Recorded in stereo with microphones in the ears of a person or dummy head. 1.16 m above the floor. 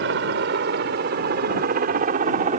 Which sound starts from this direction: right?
A helicopter, at 0.0 s.